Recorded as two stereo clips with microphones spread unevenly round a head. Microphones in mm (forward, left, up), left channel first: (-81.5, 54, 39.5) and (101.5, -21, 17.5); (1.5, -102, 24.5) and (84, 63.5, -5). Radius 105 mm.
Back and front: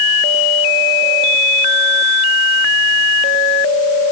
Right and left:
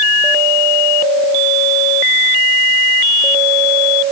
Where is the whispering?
I don't hear whispering.